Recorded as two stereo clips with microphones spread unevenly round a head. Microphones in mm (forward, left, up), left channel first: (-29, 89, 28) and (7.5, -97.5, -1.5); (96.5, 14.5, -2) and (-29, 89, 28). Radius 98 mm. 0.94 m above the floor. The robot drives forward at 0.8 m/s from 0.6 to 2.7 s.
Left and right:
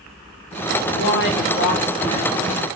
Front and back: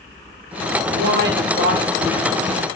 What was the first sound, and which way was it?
A woman speaking, 130° left.